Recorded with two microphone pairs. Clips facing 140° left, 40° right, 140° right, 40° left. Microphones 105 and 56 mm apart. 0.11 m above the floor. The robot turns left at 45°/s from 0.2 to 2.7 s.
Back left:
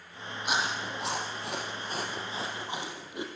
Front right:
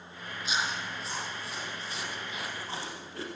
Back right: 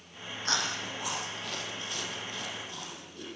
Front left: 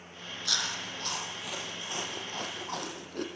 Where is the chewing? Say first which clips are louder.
Back left 2 dB, back right 3 dB; 170° left, 4 m; by 3.2 s 70° left, 4 m.